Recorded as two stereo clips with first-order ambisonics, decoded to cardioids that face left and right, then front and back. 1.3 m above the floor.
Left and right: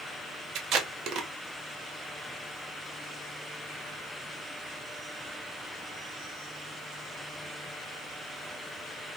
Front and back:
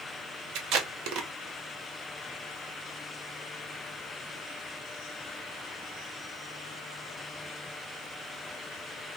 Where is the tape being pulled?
140° right, 0.5 m.